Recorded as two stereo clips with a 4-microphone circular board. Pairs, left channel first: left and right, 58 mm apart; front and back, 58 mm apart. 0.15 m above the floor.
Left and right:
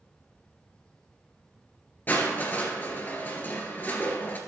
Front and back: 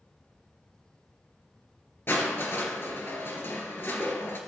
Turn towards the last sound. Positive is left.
turn(degrees=40)